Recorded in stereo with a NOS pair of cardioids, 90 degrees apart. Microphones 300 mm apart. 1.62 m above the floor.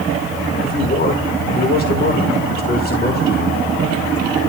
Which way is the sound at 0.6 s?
30° left.